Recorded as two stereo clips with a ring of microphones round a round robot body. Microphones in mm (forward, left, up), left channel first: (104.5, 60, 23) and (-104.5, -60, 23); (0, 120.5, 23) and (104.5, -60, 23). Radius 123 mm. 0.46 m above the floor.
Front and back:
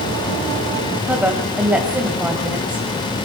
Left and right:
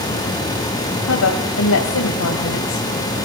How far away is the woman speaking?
About 2 m.